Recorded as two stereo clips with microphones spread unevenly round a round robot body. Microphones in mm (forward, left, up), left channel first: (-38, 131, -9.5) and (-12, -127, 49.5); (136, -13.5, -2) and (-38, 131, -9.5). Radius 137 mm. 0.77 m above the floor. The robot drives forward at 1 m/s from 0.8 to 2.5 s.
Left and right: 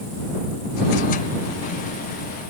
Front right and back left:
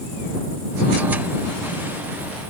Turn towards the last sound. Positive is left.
No sound to turn to.